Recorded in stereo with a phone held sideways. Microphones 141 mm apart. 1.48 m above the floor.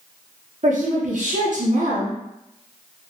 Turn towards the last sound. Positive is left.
turn(degrees=-65)  # may be behind; listen again after turning